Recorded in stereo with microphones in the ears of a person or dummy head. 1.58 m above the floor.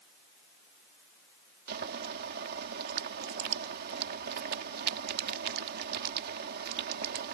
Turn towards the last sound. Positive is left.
turn(degrees=-55)  # may be behind; listen again after turning